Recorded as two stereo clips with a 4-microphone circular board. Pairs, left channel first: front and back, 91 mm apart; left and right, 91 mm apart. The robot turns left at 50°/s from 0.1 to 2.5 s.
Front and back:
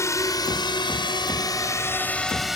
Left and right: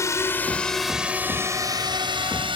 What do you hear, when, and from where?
0.0 s a drone: 45° left; by 2.6 s 95° right